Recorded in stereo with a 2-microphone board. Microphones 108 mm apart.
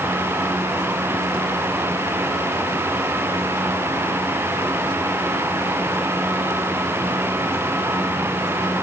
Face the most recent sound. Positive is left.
No sound to turn to.